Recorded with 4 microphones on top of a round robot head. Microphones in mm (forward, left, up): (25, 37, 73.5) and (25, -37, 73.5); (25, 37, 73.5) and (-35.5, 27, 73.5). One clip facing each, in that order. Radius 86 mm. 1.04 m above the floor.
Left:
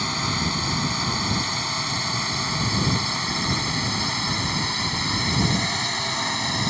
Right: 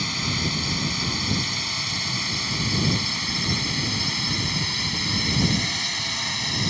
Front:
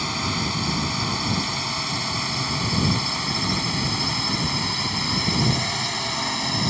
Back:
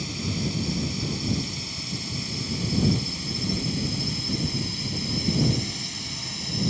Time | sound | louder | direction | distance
0.0 | a drone | left 2 dB, front 4 dB | 35° left | ?